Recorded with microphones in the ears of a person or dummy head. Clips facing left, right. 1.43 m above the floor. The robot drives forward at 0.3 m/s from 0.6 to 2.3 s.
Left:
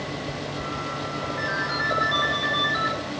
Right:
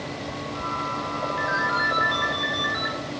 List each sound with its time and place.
1.4 s a ringtone: 5° right (ahead or behind), 1.5 m